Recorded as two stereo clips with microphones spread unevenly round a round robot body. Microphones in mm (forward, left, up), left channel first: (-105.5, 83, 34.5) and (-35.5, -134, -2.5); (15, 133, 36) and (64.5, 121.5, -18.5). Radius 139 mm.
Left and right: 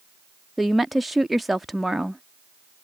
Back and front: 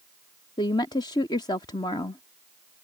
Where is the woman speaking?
145° right.